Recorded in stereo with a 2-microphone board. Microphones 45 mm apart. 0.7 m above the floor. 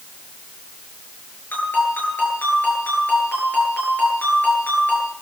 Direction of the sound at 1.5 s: 45° left (ahead or behind).